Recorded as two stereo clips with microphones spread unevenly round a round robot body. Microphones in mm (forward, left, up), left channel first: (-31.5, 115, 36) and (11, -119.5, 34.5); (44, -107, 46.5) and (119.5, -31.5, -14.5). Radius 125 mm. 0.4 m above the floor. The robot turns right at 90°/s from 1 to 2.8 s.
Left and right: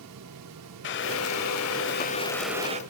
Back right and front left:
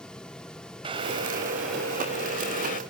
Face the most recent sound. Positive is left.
turn(degrees=-140)